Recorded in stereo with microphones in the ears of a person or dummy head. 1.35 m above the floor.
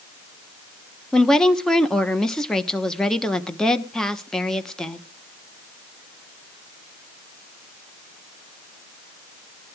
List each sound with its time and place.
1.1 s a woman speaking: 10° left (ahead or behind), 1.0 m